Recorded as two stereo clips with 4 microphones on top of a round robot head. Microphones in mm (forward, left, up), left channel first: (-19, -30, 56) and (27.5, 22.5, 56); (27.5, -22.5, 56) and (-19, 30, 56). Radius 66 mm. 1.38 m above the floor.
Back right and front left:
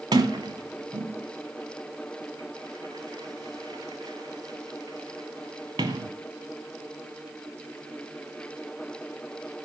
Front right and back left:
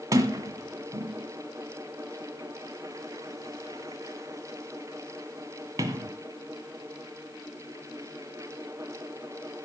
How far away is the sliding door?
About 1.9 m.